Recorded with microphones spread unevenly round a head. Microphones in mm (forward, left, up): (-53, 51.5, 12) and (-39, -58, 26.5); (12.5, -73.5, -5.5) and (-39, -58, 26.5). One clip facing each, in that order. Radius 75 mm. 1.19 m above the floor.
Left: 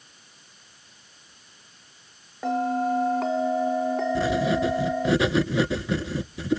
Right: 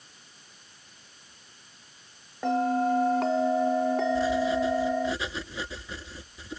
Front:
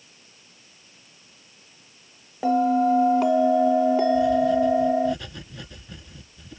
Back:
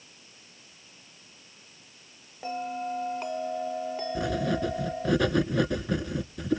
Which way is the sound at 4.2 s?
125° left.